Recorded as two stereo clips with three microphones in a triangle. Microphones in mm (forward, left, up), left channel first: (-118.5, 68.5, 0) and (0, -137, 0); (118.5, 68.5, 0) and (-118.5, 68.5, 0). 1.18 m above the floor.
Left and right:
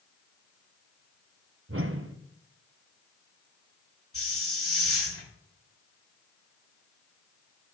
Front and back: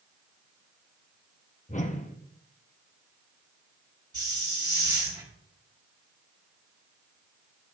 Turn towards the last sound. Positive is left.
turn(degrees=110)